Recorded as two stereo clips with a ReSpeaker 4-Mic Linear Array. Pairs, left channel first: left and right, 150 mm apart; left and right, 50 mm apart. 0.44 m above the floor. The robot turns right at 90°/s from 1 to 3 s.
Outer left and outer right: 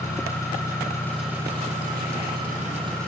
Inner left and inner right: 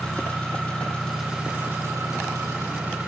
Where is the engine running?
160° left, 6 m; by 3.1 s 20° right, 6 m.